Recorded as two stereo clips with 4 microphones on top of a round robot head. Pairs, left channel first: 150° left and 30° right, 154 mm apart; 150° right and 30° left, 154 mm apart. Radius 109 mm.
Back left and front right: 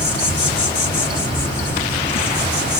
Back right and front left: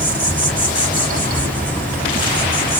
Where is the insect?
130° left, 2.5 m.